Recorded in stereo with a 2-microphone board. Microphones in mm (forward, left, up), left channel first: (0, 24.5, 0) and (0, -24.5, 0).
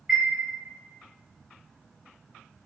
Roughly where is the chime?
Centre.